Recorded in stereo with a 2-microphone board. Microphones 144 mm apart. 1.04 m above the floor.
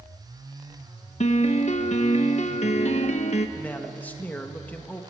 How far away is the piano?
About 1.3 m.